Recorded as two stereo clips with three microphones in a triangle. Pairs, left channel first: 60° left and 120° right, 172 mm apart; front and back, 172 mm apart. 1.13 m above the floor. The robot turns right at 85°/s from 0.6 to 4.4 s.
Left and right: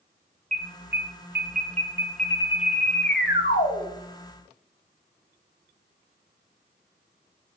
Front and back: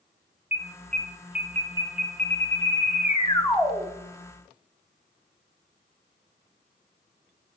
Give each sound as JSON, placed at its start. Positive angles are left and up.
{"t": 0.5, "sound": "an alarm", "azimuth_deg": -165, "distance_m": 1.1}